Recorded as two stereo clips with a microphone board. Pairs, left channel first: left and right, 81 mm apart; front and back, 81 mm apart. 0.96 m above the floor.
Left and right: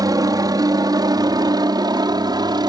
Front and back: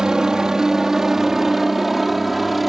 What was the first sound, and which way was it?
A helicopter, 100° right.